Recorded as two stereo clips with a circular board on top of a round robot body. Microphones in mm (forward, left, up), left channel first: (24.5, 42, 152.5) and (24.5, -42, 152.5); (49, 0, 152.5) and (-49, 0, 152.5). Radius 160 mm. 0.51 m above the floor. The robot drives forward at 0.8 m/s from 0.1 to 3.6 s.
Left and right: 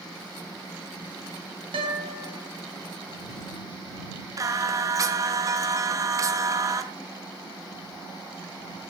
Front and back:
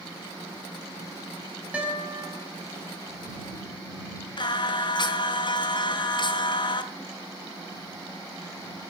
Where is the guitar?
100° right, 5.5 m; by 2.4 s 110° right, 5.5 m.